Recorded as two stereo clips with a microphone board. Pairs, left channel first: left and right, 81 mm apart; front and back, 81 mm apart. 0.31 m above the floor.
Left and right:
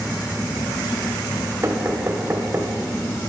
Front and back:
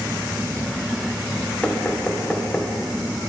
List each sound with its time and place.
1.6 s knocking: 70° right, 1.2 m